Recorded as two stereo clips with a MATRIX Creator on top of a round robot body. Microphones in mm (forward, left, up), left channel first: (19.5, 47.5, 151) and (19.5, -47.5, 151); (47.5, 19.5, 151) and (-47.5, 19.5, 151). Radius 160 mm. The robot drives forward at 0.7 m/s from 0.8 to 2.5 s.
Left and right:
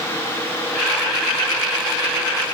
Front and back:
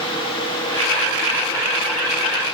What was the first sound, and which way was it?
Only background noise.